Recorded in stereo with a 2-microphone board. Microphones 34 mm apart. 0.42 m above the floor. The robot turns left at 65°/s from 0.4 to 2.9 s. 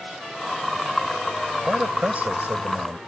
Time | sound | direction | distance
1.7 | a man speaking | 20° right | ?